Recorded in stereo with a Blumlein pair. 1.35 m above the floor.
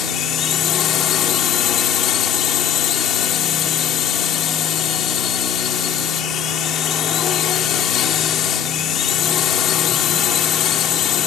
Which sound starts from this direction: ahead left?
A drone, at 0.0 s.